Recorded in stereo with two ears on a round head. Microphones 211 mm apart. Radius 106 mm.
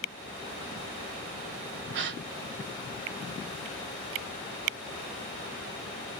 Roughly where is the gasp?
Right.